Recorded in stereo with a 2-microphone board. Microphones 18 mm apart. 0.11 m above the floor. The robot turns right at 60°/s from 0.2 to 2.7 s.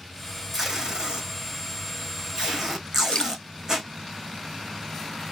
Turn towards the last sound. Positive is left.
turn(degrees=60)  # may be behind; listen again after turning